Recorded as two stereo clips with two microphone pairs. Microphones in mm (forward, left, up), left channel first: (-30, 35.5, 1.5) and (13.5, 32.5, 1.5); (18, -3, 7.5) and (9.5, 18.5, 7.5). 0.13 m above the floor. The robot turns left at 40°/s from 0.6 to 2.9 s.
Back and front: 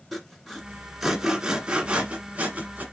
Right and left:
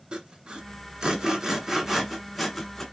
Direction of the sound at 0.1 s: 90° left.